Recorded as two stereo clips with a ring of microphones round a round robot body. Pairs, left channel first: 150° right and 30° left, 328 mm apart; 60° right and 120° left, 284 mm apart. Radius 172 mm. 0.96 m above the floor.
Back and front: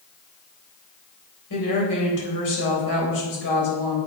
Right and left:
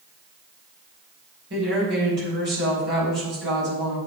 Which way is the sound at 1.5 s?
Straight behind.